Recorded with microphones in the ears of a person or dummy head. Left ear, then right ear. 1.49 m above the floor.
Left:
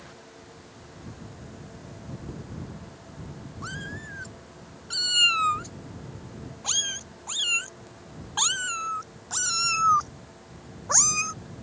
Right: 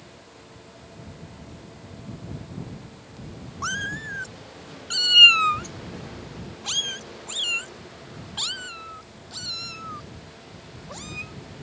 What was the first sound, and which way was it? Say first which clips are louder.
A cat meowing: right 9 dB; 40° right (ahead or behind).